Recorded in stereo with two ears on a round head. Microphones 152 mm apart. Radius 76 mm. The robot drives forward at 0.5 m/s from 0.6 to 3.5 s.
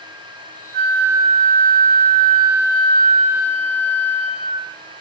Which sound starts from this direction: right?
A flute, at 0.7 s.